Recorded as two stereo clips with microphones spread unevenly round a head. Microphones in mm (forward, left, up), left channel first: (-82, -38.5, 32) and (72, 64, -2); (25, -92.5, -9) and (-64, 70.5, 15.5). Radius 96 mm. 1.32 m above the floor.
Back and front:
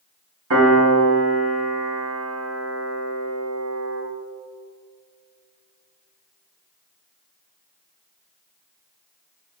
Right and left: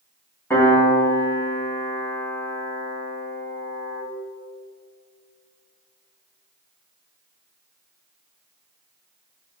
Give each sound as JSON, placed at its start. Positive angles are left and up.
{"t": 0.5, "sound": "a piano", "azimuth_deg": 20, "distance_m": 3.0}